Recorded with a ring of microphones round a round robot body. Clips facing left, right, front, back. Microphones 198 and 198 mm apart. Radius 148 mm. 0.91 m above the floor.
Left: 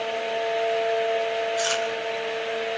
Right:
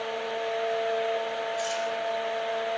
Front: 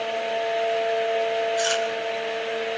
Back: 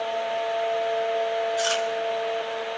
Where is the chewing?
75° left, 5 m.